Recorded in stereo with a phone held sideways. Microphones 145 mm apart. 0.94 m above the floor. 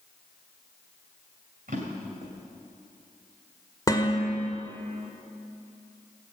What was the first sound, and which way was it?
A drawer, 70° right (ahead or behind).